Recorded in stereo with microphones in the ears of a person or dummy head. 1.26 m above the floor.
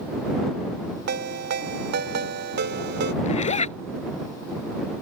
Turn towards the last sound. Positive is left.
turn(degrees=35)  # may be behind; listen again after turning